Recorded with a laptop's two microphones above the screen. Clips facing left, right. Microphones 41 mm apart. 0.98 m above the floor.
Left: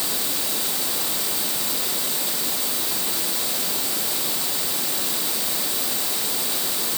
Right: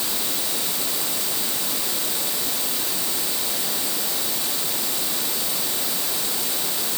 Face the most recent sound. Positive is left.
No sound to turn to.